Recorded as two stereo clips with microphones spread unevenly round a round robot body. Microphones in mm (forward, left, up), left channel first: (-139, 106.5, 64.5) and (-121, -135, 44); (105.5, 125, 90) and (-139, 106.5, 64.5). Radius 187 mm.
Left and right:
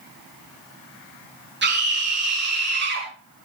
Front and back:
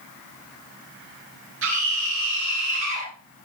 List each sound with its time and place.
1.6 s a scream: 130° right, 8 m